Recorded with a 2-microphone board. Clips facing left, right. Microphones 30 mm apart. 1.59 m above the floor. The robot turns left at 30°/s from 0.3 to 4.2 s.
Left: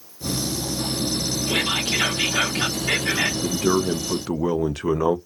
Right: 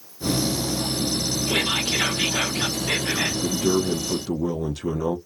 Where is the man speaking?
70° left (ahead or behind), 0.6 m; by 5.2 s 85° left, 0.6 m.